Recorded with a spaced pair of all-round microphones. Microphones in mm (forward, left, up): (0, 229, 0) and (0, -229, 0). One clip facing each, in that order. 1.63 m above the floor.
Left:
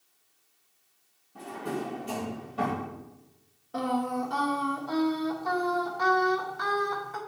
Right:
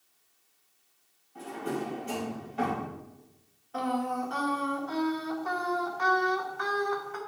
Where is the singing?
55° left (ahead or behind), 0.9 m.